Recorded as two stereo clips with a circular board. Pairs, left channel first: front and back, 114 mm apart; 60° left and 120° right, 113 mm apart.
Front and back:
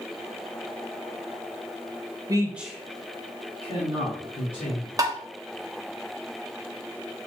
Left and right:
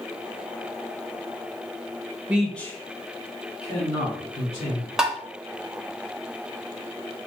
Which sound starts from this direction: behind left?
Tapping, at 5.0 s.